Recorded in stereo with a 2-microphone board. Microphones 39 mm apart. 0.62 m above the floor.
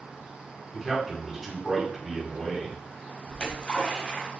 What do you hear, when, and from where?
0.7 s a man speaking: centre (ahead or behind), 1.6 m
3.3 s a splash: 25° left (ahead or behind), 1.4 m